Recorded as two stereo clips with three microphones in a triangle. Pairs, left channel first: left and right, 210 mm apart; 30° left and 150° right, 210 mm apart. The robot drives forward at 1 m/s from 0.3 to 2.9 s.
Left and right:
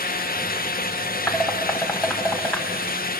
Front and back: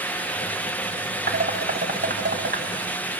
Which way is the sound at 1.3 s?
170° left.